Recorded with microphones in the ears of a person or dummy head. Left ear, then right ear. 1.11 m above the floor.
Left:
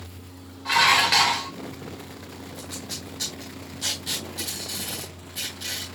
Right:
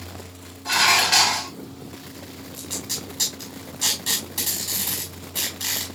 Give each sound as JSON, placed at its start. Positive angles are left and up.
{"t": 0.7, "sound": "dishes clattering", "side_deg": 20, "distance_m": 2.5}
{"t": 2.5, "sound": "tape being pulled", "side_deg": -25, "distance_m": 5.0}